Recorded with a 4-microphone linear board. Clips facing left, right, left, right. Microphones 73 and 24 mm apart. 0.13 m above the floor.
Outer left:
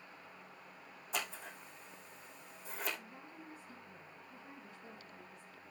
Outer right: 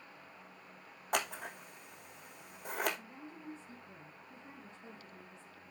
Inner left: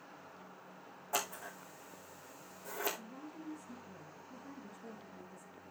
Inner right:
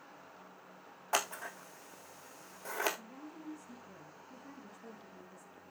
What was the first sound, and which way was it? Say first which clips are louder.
Scissors: outer right 6 dB, inner right 4 dB; 65° right (ahead or behind).